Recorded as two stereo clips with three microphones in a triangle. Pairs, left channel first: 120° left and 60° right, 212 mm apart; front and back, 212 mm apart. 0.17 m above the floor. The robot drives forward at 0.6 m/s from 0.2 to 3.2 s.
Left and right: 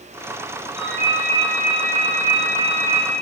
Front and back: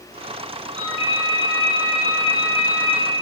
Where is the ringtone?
115° left, 1.7 m; by 3.1 s 145° left, 2.5 m.